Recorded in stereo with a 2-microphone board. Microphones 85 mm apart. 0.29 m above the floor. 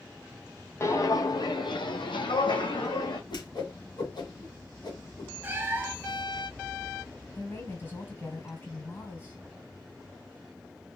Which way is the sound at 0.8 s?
35° left (ahead or behind).